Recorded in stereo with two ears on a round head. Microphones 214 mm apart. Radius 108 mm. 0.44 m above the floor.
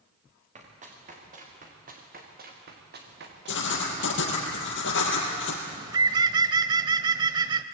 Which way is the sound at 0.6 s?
30° right (ahead or behind).